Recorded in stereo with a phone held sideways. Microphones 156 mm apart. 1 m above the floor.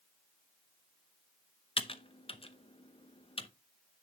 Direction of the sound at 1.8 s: 35° left (ahead or behind).